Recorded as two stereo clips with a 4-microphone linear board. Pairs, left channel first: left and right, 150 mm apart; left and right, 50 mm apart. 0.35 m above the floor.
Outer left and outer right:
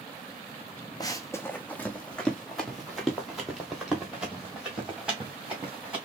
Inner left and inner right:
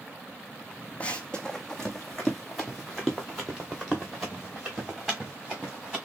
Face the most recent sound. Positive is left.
turn(degrees=-10)  # may be behind; listen again after turning